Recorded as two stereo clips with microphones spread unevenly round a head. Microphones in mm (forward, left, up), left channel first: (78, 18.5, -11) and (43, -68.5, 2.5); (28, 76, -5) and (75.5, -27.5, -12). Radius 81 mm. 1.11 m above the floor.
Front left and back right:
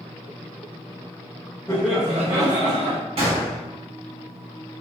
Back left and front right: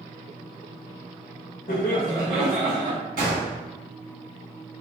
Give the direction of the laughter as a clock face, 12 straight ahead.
7 o'clock.